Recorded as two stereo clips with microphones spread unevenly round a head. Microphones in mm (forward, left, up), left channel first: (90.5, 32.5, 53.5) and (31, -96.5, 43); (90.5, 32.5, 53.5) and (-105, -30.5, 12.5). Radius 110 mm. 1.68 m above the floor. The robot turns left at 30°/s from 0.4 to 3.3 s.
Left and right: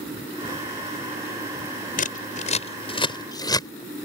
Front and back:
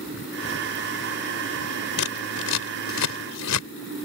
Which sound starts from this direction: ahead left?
Scissors, at 2.0 s.